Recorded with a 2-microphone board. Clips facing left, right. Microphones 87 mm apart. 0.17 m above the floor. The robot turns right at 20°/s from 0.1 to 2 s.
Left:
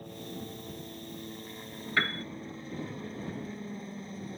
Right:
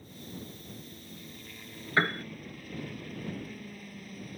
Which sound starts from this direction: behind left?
A helicopter, at 0.0 s.